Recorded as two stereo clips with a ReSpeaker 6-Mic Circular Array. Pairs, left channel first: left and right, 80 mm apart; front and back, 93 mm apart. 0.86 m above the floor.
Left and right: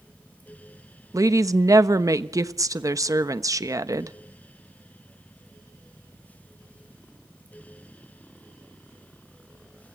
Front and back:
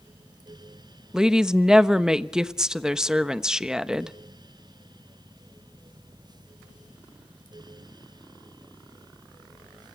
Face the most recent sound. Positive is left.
turn(degrees=-100)